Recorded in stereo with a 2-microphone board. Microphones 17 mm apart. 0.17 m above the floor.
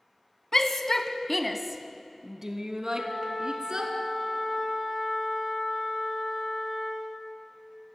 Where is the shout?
30° left (ahead or behind), 1.5 m; by 3.9 s 55° right (ahead or behind), 2.5 m.